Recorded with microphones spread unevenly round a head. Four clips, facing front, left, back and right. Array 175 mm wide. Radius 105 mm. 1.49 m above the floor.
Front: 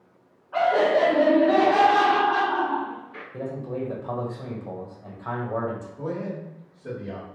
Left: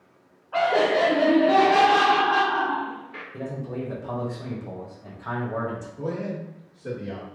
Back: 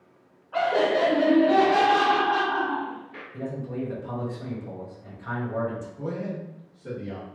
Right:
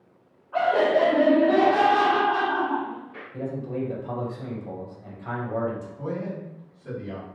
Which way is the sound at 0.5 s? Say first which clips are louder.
Even, front 3 dB; 65° left.